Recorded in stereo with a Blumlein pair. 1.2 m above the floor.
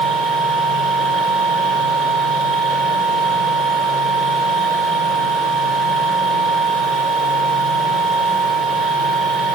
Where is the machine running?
20° right, 5 m.